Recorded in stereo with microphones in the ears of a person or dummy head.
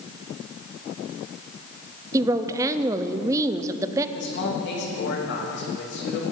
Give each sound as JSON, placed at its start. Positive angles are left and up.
{"t": 2.1, "sound": "a woman speaking", "side_deg": -15, "distance_m": 0.6}
{"t": 4.2, "sound": "a man speaking", "side_deg": 60, "distance_m": 2.5}